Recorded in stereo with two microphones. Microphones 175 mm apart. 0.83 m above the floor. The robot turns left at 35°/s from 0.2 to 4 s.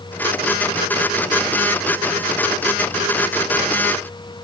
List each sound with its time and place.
Only background noise.